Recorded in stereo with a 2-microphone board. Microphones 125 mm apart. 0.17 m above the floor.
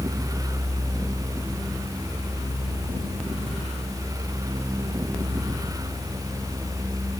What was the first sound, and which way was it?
Only background noise.